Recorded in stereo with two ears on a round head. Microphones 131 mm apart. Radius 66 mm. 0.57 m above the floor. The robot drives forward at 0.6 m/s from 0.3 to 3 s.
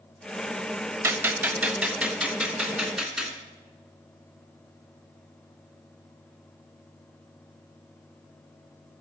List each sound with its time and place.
1.0 s a gunshot: 20° right (ahead or behind), 0.6 m; by 3.4 s 5° right (ahead or behind), 1.7 m